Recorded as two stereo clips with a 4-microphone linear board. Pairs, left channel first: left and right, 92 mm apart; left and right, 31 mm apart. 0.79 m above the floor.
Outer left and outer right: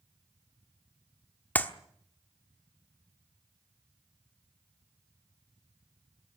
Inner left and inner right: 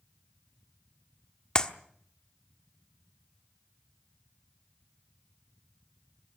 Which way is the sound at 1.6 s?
15° left (ahead or behind).